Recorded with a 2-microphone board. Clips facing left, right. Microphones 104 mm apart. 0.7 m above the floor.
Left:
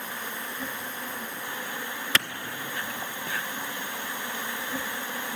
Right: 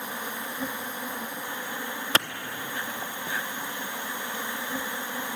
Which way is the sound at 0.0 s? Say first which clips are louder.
Right 2 dB; 15° right (ahead or behind).